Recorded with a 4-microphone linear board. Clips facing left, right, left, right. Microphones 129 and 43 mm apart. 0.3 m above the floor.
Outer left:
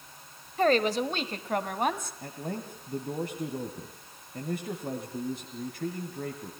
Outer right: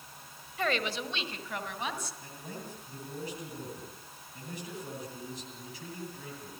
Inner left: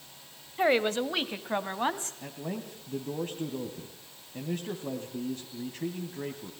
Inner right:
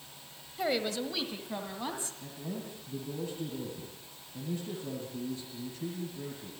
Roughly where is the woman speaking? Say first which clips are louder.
Outer left 8 dB, inner left 6 dB; left.